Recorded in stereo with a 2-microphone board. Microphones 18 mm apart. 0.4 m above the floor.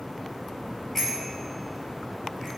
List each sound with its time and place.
0.9 s a bicycle bell: 20° left (ahead or behind), 5.5 m